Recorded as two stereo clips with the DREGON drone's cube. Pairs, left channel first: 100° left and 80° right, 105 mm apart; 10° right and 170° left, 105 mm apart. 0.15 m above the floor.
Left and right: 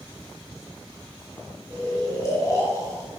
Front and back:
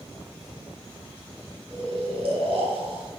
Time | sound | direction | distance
1.7 | snoring | 155° left | 1.1 m